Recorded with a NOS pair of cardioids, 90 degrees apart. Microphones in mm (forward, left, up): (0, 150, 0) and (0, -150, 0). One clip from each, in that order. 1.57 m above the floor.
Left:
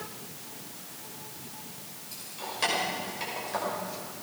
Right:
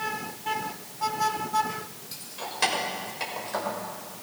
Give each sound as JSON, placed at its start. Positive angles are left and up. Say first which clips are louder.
{"t": 2.1, "sound": "keys jangling", "louder": "right 1 dB", "azimuth_deg": -35, "distance_m": 5.5}